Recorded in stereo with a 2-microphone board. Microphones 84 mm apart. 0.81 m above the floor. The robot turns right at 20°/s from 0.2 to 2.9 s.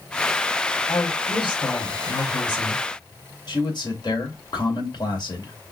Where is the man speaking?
60° left (ahead or behind), 2.5 m.